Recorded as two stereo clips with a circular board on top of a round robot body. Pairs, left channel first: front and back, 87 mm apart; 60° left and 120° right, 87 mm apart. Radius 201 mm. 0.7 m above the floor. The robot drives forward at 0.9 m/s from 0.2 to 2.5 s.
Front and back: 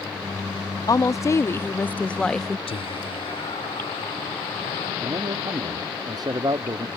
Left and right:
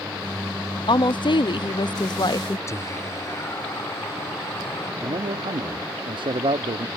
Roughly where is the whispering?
Ahead.